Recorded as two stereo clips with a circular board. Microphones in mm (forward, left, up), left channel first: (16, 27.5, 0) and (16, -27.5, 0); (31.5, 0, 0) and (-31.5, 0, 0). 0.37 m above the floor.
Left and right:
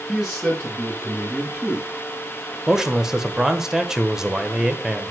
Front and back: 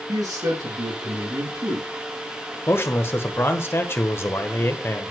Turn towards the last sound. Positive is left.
turn(degrees=-15)